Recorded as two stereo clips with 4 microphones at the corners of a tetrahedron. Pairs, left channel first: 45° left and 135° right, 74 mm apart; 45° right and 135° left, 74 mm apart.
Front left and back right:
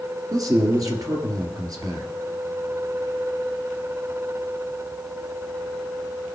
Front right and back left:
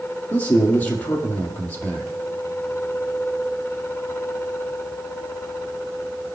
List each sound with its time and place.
0.3 s a man speaking: 105° right, 2 m